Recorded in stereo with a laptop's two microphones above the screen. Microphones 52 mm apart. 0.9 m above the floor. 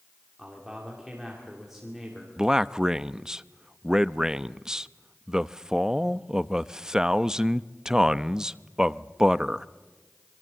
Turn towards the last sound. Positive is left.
turn(degrees=-10)  # may be behind; listen again after turning